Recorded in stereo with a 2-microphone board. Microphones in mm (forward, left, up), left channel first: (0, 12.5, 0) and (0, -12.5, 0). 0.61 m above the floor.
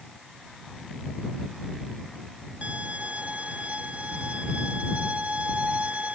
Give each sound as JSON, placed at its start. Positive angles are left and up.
{"t": 2.6, "sound": "a violin", "side_deg": -55}